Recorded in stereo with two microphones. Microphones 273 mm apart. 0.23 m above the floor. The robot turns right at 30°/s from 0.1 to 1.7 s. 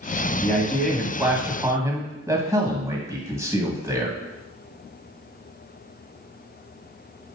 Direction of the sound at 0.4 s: 10° left (ahead or behind).